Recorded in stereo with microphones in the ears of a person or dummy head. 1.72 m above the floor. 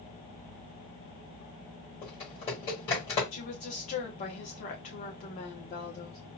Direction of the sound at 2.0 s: 20° left (ahead or behind).